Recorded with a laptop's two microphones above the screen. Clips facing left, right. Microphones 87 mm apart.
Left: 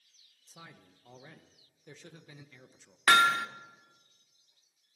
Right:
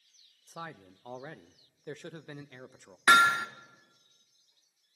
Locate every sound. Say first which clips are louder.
0.5 s a man speaking: right 10 dB; 60° right (ahead or behind), 0.6 m
3.1 s hammering: right 2 dB; 20° right (ahead or behind), 1.7 m